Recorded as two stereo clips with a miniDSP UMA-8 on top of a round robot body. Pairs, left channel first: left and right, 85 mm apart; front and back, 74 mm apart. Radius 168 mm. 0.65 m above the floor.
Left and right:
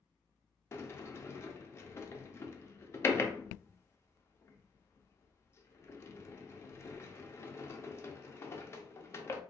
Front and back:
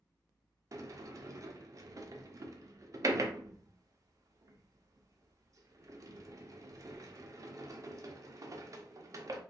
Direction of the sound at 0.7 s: 145° left.